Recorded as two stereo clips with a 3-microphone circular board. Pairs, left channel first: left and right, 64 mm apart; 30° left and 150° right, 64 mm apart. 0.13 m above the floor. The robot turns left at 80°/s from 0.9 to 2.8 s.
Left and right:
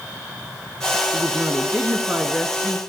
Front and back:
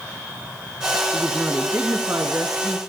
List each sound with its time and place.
1.1 s a woman speaking: 65° right, 1.7 m; by 2.8 s 160° left, 1.7 m